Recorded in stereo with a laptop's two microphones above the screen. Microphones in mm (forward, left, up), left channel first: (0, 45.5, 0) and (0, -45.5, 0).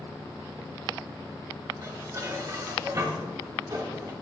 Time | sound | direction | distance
1.8 | dishes clattering | 40° right (ahead or behind) | 2 m